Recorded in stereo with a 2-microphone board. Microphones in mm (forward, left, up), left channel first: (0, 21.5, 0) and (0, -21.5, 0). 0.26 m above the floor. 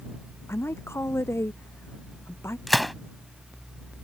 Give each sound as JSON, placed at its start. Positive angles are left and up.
{"t": 0.5, "sound": "a woman speaking", "side_deg": 80}
{"t": 2.7, "sound": "a gunshot", "side_deg": 0}